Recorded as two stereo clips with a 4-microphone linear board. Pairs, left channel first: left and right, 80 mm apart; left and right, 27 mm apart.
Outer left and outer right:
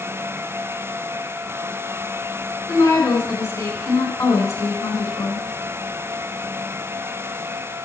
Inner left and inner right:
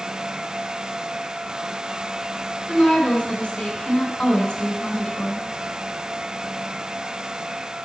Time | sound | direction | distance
2.7 | a woman speaking | 40° left (ahead or behind) | 4 m